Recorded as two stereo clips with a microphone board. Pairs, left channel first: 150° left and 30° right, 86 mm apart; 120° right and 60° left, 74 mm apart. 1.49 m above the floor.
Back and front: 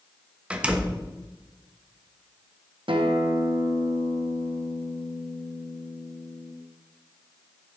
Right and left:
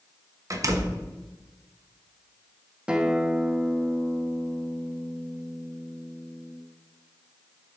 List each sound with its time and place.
0.5 s a door slam: 40° left, 0.9 m
2.9 s a guitar: 20° right, 1.0 m